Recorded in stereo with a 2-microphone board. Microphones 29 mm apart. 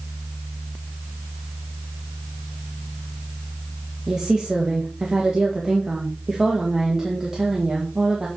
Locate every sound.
4.1 s a woman speaking: 25° right (ahead or behind), 1.6 m